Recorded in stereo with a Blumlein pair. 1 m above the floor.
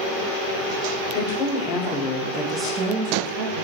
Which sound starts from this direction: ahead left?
A woman speaking, at 1.1 s.